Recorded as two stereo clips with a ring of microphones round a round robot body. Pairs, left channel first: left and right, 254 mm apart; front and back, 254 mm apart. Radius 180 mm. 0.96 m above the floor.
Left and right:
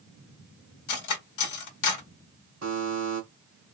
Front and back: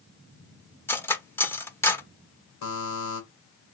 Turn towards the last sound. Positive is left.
turn(degrees=-30)